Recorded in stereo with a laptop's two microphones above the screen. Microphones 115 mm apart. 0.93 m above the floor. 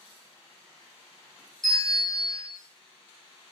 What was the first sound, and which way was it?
A bell, 5° left (ahead or behind).